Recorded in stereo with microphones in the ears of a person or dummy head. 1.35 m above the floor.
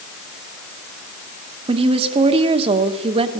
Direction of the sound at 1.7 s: 30° right (ahead or behind).